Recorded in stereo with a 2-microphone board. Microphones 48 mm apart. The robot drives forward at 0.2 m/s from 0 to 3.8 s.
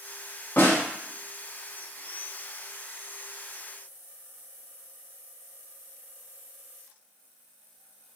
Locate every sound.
0.6 s a snare drum: 50° left (ahead or behind), 0.8 m; by 0.8 s 45° left (ahead or behind), 0.8 m